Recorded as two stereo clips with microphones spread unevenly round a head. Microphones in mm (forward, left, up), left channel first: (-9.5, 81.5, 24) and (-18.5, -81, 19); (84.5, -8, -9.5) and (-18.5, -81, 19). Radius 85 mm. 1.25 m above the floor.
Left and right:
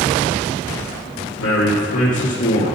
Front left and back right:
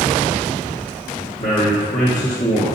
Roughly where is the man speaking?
Left.